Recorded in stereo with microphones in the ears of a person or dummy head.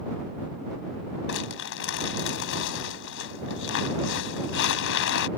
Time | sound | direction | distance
1.3 | crumpling | 65° left (ahead or behind) | ?